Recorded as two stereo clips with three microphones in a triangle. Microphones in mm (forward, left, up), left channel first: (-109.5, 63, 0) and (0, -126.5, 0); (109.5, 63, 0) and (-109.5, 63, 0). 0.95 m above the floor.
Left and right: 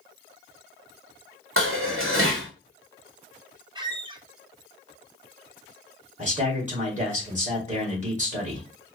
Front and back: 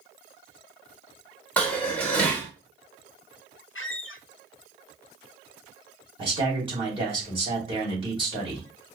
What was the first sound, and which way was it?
Dishes clattering, 85° right.